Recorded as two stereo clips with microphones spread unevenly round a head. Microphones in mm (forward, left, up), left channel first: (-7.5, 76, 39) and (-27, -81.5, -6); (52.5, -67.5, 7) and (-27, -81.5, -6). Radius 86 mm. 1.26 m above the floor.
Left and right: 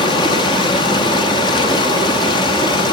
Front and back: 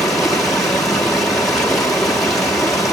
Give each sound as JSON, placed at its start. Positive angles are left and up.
{"t": 0.0, "sound": "running water", "azimuth_deg": 85, "distance_m": 0.8}